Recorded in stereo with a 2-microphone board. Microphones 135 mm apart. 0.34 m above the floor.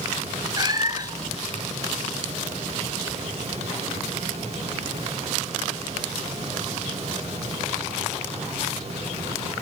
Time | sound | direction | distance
0.6 | a cat meowing | 30° right (ahead or behind) | 1.1 m